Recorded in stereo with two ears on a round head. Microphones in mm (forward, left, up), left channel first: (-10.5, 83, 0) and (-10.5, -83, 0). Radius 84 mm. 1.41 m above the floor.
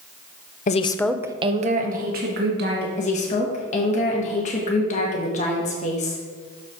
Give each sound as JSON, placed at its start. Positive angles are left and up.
{"t": 0.7, "sound": "a woman speaking", "side_deg": 45, "distance_m": 0.6}
{"t": 3.0, "sound": "a woman speaking", "side_deg": 40, "distance_m": 1.2}